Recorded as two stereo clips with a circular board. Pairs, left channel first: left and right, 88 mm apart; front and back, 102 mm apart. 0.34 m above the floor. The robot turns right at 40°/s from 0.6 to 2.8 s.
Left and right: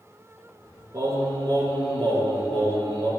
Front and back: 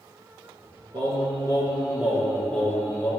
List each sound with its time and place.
0.9 s singing: 140° right, 2 m; by 3.1 s 70° right, 2 m